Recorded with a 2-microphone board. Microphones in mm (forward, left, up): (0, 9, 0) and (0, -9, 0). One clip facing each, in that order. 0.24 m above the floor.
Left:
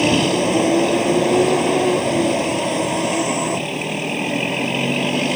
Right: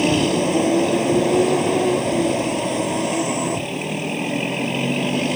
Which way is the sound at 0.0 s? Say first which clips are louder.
Left 2 dB; 10° left (ahead or behind).